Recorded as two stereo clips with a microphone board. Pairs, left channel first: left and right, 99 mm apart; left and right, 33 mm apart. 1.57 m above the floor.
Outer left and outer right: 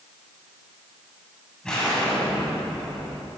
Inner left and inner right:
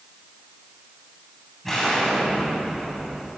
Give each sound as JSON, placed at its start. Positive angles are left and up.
{"t": 1.6, "sound": "an explosion", "side_deg": 10, "distance_m": 9.5}